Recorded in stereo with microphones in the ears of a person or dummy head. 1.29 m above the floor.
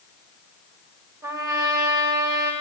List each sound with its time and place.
1.2 s a trumpet: 15° right (ahead or behind), 1.9 m